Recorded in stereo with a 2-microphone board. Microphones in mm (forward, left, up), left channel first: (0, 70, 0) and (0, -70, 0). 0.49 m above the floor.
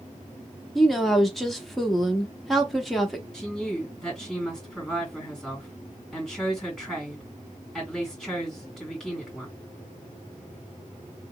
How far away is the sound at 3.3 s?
About 3 m.